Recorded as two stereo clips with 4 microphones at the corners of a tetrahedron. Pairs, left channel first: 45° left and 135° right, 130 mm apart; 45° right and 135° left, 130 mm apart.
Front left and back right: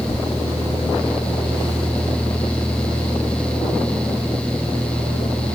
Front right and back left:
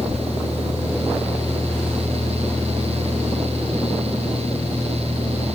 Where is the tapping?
110° left, 1.5 m.